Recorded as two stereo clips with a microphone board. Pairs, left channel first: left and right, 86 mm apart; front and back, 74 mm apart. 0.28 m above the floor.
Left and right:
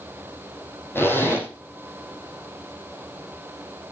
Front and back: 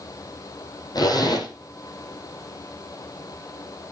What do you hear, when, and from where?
0.9 s a zipper: 25° left, 5 m